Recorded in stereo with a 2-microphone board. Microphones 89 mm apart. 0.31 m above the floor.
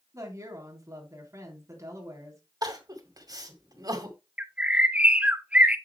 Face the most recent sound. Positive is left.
turn(degrees=-15)  # may be behind; listen again after turning